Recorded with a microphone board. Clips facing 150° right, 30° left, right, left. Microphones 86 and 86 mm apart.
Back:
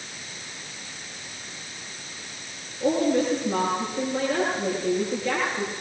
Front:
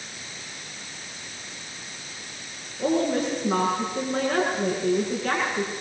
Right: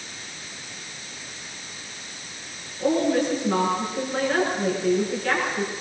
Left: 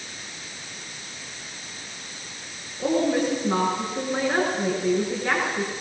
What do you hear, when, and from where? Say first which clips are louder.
2.8 s a woman speaking: back 1 dB, right 1 dB; 20° left, 7 m